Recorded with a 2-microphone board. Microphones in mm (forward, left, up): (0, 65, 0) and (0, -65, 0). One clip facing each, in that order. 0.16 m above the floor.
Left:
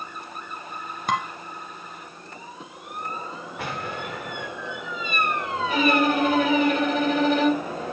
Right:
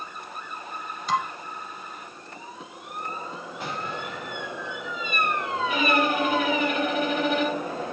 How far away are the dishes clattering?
About 1.7 m.